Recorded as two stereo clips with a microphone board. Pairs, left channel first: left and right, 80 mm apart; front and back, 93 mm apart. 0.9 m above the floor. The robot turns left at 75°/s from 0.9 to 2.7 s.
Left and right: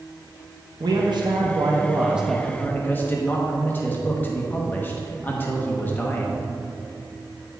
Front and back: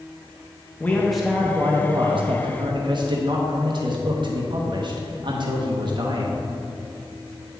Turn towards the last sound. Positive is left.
turn(degrees=150)